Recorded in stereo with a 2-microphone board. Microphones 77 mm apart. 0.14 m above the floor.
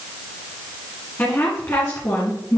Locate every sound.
1.2 s a woman speaking: 20° left (ahead or behind), 1.8 m; by 2.6 s 45° left (ahead or behind), 2.5 m